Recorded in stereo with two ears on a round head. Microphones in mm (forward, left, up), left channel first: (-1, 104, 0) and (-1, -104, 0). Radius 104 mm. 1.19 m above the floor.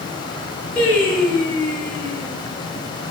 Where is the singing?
5° left (ahead or behind), 7.5 m.